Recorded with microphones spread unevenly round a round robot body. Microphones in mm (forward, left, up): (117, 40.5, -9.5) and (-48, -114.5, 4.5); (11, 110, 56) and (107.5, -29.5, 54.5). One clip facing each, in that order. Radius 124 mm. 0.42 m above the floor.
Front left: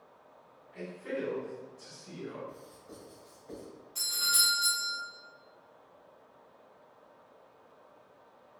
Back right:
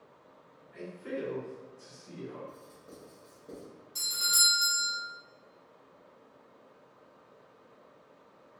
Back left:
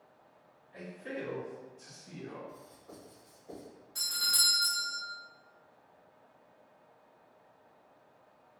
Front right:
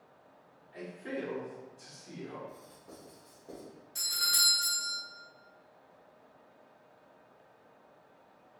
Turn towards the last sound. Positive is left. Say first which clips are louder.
# even, front right 2 dB
turn(degrees=-120)